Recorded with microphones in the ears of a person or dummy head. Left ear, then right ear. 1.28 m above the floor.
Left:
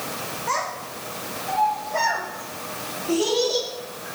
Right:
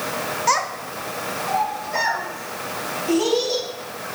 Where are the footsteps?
I don't hear footsteps.